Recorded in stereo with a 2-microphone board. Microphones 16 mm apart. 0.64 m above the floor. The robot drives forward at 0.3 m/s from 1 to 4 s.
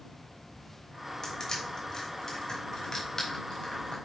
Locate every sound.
1.2 s crushing: 35° left (ahead or behind), 3.5 m; by 4.0 s 30° left (ahead or behind), 4 m